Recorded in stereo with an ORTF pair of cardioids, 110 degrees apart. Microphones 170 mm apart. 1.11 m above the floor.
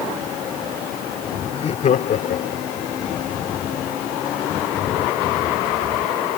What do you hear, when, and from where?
1.5 s laughter: 35° left; by 2.9 s 65° left